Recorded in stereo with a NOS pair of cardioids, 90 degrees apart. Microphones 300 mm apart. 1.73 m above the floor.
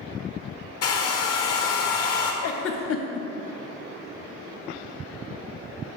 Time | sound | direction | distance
0.8 | a hair dryer | 55° left | 0.8 m
2.4 | a giggle | 50° left | 0.5 m